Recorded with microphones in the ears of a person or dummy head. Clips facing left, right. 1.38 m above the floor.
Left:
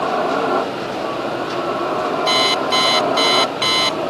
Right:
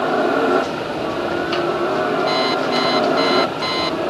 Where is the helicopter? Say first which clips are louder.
Right 2 dB; 20° right (ahead or behind).